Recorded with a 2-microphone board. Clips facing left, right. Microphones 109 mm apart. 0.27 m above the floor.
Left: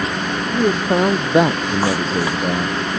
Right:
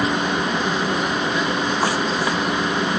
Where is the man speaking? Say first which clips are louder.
Left 5 dB; 50° left (ahead or behind).